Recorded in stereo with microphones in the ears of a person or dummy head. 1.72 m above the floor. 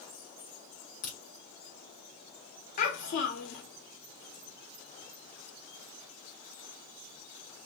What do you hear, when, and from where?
1.0 s a crack: 45° left (ahead or behind), 2 m
2.8 s a child speaking: 50° left (ahead or behind), 1.4 m